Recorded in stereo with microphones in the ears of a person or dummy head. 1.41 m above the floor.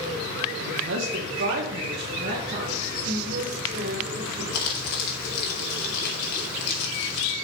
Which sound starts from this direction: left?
Crumpling, at 4.5 s.